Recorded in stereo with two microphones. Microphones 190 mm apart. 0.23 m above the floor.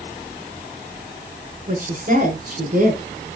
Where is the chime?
I don't hear a chime.